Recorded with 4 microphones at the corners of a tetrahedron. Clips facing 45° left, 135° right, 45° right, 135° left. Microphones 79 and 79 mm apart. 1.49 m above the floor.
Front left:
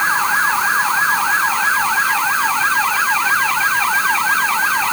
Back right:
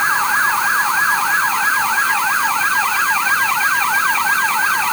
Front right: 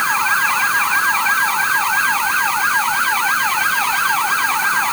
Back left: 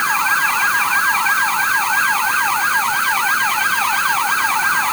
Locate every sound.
Only background noise.